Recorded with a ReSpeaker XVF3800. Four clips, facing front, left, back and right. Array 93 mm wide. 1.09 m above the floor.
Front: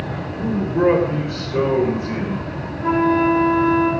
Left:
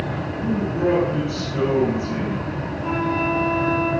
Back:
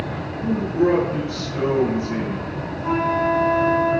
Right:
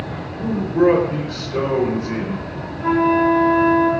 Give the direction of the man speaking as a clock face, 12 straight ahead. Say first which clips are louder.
Right 6 dB, front 2 dB; 1 o'clock.